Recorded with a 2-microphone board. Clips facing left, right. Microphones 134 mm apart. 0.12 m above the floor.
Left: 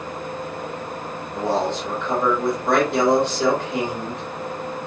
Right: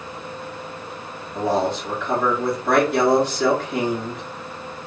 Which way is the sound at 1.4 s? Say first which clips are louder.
Right 1 dB; 25° left (ahead or behind).